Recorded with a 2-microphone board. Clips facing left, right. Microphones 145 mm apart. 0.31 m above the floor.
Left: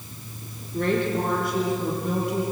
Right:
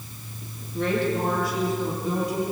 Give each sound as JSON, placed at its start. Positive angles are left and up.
{"t": 0.7, "sound": "a woman speaking", "side_deg": 50, "distance_m": 6.0}